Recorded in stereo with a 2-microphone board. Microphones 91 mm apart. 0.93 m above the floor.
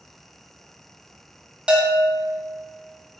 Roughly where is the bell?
Centre.